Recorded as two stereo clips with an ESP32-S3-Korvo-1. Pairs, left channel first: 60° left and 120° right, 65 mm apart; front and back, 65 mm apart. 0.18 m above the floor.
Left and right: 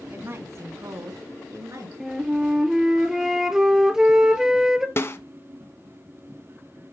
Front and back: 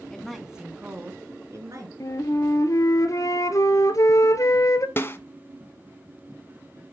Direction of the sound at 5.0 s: 35° left.